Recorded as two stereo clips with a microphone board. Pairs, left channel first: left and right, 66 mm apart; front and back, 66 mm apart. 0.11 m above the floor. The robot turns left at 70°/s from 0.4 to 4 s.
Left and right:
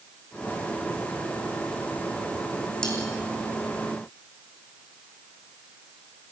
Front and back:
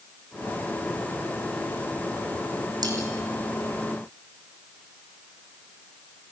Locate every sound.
2.8 s cutlery clinking: 170° left, 3.5 m; by 3.0 s 160° left, 3.5 m